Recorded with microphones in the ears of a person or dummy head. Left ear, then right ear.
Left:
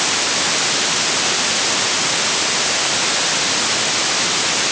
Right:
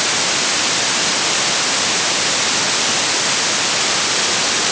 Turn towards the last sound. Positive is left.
No sound to turn to.